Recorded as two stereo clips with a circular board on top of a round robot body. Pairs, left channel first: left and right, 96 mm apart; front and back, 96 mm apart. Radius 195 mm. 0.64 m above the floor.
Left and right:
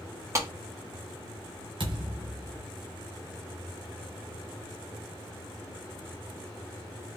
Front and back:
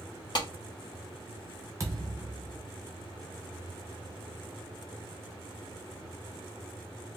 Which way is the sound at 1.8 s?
120° right.